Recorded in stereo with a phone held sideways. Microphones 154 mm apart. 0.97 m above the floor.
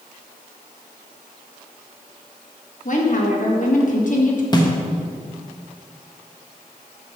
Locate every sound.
2.9 s a woman speaking: 55° left (ahead or behind), 1.5 m
4.5 s a snare drum: 25° left (ahead or behind), 1.2 m